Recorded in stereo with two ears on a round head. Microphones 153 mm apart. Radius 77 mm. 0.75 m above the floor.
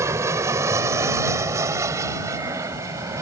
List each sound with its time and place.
0.0 s an aircraft: 20° right (ahead or behind)